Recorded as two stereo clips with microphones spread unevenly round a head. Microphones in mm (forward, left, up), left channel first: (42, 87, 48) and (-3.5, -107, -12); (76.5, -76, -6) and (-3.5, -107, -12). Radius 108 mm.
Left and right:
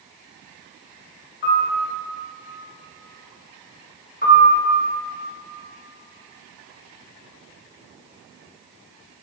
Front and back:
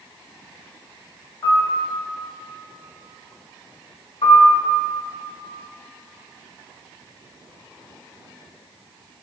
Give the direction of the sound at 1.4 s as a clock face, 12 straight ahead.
9 o'clock.